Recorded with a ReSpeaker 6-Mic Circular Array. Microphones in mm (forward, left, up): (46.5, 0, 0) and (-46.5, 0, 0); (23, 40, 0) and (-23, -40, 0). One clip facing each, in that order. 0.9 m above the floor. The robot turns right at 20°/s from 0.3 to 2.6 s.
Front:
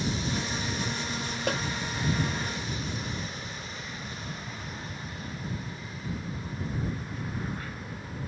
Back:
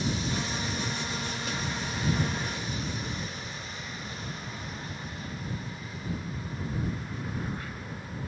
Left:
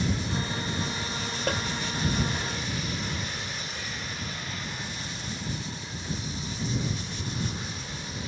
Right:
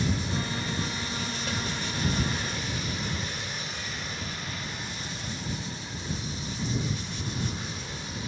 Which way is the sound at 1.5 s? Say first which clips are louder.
Front 9 dB, left 7 dB; 25° left.